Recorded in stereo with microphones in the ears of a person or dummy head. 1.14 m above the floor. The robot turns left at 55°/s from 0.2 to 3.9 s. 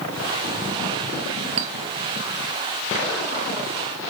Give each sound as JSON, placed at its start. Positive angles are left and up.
{"t": 1.6, "sound": "a clink", "side_deg": -30, "distance_m": 0.9}